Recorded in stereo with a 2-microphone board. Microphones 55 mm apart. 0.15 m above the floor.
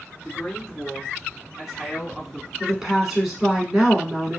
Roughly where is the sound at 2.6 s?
Centre.